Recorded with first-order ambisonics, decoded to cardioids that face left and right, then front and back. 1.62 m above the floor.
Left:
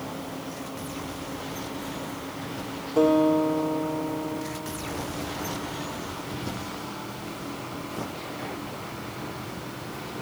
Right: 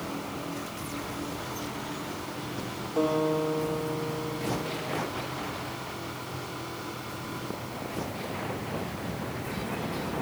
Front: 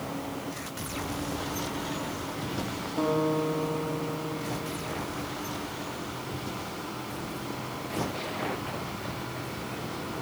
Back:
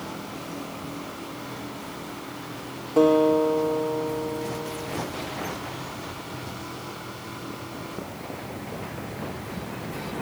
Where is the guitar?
170° left, 3 m.